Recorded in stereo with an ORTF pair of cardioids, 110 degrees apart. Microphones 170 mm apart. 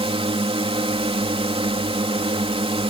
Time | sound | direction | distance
0.0 | a drone | 35° right | ?